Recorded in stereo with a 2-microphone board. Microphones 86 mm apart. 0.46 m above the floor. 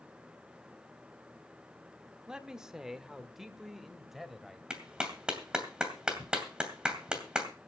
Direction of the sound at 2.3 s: 10° right (ahead or behind).